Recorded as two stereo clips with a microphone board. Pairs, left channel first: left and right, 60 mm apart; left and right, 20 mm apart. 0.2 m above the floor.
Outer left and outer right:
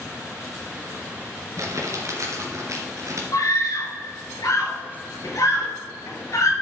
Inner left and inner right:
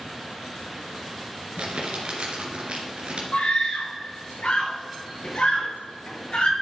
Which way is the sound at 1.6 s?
60° right (ahead or behind).